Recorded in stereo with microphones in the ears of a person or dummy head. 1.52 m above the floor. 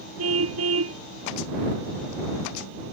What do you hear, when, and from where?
0.2 s a car horn: 85° right